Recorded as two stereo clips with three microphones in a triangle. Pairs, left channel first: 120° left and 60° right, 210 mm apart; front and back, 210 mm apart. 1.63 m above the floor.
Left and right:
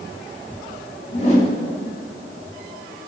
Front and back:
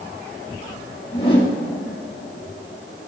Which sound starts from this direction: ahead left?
A whoosh, at 1.1 s.